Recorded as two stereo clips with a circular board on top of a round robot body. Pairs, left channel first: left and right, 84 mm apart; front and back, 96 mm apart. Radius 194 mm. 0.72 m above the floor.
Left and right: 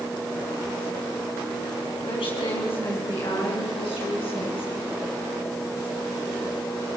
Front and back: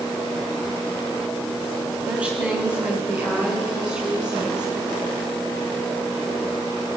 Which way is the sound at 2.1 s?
100° left.